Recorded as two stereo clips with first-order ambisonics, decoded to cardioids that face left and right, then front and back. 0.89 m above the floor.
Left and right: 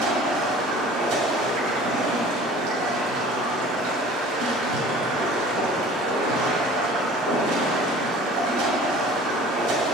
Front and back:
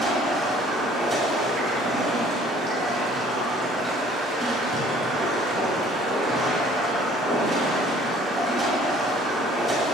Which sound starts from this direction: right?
Running water, at 0.0 s.